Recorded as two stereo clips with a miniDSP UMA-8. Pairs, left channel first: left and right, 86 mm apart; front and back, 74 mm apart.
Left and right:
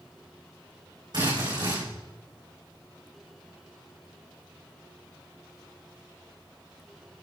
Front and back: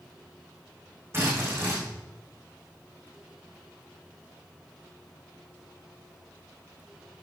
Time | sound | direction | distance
1.1 | a drill | 125° right | 8.5 m